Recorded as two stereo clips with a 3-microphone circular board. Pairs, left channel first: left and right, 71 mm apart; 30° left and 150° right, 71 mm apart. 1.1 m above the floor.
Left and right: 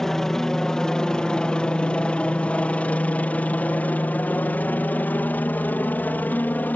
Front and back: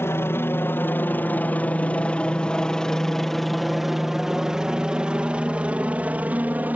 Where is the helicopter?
10° left; by 6.8 s 150° left.